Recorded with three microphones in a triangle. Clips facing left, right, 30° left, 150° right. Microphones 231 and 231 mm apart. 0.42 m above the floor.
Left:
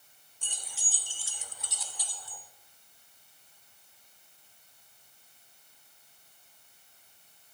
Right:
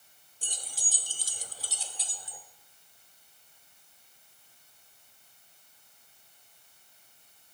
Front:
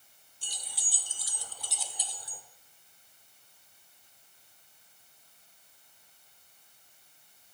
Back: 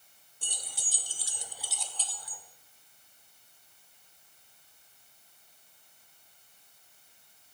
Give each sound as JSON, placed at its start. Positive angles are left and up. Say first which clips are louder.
{"t": 0.4, "sound": "keys jangling", "louder": "right 3 dB, back 3 dB", "azimuth_deg": -135, "distance_m": 0.9}